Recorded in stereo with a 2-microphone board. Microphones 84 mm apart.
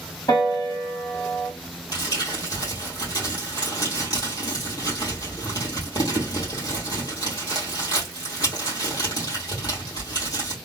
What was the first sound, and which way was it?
A piano, 45° left (ahead or behind).